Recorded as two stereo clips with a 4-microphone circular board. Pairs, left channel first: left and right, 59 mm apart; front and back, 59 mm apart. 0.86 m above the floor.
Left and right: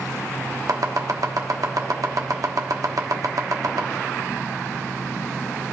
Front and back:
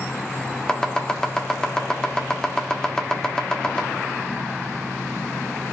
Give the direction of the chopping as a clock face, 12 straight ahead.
3 o'clock.